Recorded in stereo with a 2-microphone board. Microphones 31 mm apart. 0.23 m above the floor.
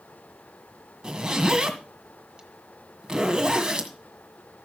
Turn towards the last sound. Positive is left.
turn(degrees=-25)  # may be behind; listen again after turning